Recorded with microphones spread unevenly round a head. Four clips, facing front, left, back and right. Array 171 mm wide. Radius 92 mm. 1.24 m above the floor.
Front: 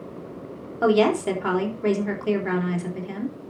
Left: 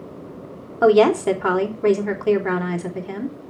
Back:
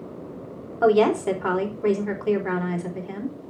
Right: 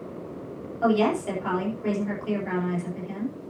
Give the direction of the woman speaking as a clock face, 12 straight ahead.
10 o'clock.